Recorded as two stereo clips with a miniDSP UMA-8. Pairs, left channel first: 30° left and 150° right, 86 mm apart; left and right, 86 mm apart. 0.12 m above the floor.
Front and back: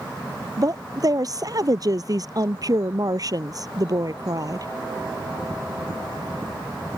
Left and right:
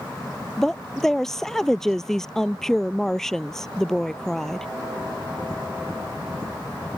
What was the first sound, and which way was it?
A woman speaking, 175° left.